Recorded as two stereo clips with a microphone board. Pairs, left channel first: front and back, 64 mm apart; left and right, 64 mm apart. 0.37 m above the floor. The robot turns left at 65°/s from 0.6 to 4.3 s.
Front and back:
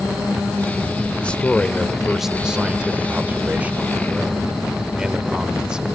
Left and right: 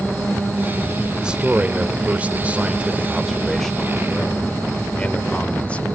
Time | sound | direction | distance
1.2 | a man speaking | 30° right | 1.1 m